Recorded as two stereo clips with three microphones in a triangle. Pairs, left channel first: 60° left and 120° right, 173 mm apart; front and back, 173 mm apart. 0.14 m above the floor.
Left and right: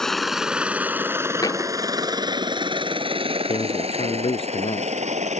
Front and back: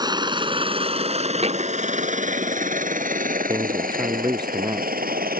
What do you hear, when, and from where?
0.0 s a helicopter: 145° left; by 5.4 s 160° right
1.4 s a thud: 130° left
3.5 s a man speaking: 115° left